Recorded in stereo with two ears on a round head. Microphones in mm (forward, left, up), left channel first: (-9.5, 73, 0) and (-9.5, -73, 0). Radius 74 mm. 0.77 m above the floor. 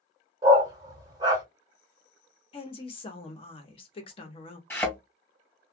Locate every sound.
0.4 s a dog barking: 25° right (ahead or behind), 0.9 m
2.5 s a woman speaking: 35° left (ahead or behind), 0.8 m
4.7 s a thud: 15° left (ahead or behind), 1.7 m